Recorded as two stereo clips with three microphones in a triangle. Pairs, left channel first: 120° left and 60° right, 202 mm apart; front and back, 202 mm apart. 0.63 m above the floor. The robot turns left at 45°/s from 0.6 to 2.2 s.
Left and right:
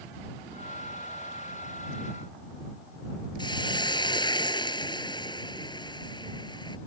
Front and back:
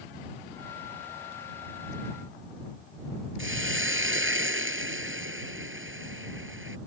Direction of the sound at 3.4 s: 170° right.